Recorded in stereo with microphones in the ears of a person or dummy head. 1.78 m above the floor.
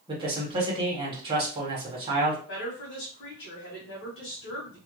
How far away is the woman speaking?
About 1.2 m.